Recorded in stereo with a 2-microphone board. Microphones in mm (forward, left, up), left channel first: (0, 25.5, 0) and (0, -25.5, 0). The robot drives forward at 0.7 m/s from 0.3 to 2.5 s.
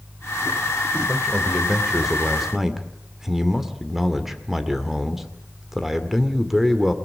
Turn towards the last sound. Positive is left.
turn(degrees=-5)  # may be behind; listen again after turning